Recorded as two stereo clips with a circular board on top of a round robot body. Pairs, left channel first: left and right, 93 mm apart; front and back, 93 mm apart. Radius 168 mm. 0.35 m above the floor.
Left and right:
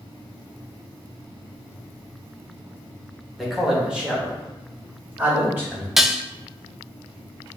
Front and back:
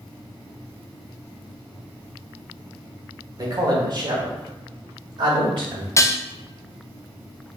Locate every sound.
3.4 s a man speaking: 175° right, 1.4 m; by 5.9 s 155° right, 2.5 m
6.0 s dishes clattering: 10° right, 0.5 m